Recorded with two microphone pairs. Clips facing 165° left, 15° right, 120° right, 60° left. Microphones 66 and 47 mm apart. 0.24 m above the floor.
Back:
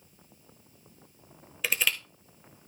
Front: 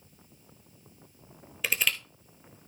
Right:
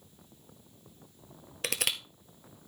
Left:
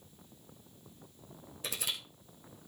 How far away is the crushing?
About 1.0 m.